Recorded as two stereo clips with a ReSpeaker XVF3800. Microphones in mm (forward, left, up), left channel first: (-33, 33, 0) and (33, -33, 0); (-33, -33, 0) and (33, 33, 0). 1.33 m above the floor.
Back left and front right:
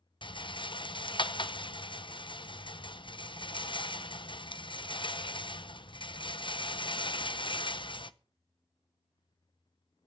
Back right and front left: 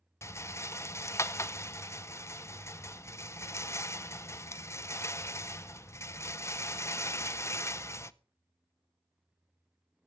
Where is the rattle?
165° left, 0.7 m.